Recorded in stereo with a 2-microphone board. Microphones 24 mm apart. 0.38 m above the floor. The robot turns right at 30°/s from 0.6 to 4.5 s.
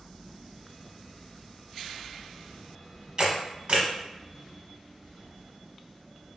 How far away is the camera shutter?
About 0.9 m.